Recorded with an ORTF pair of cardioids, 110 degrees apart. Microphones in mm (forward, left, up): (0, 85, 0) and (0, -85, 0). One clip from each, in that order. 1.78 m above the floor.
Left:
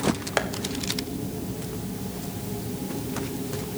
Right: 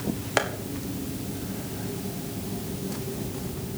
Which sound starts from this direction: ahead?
Tapping, at 0.4 s.